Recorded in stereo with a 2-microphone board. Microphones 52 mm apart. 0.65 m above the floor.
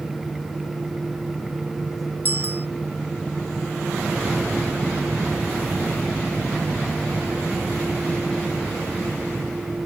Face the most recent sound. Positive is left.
turn(degrees=-40)  # may be behind; listen again after turning